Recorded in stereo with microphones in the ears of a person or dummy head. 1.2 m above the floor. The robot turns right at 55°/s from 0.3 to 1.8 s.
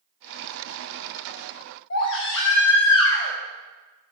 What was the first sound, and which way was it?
A baby crying, 80° left.